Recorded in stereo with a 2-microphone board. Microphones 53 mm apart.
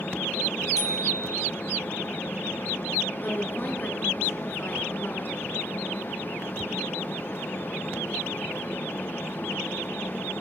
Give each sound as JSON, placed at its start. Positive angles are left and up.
{"t": 0.8, "sound": "a bicycle bell", "side_deg": 70, "distance_m": 8.5}
{"t": 3.2, "sound": "a woman speaking", "side_deg": 40, "distance_m": 5.5}